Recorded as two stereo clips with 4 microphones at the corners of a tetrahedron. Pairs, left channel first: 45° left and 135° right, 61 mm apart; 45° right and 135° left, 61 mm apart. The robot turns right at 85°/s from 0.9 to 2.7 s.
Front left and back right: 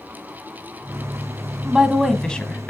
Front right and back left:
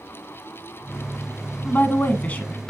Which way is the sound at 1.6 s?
70° right.